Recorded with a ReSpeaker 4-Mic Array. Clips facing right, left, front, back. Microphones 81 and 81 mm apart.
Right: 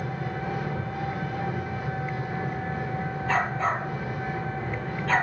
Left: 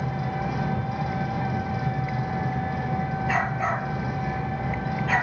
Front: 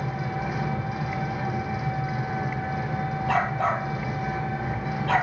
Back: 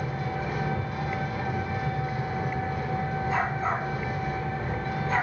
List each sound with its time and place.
0.0 s an engine running: 85° left, 5.5 m
3.3 s a dog barking: 5° left, 3 m